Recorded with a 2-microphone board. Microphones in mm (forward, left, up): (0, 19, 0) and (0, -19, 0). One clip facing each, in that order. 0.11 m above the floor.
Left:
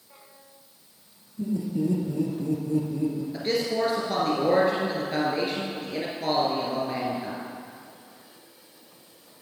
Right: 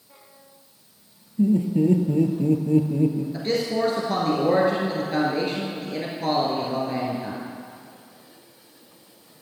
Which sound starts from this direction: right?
Laughter, at 1.4 s.